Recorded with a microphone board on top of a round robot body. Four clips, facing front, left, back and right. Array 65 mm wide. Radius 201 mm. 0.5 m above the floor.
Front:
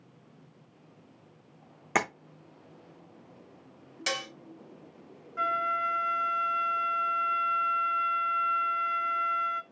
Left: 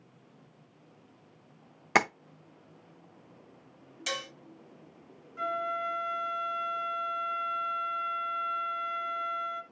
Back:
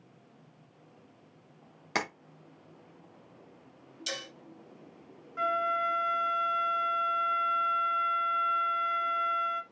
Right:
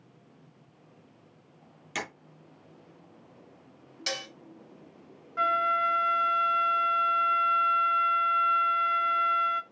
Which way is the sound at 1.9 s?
70° left.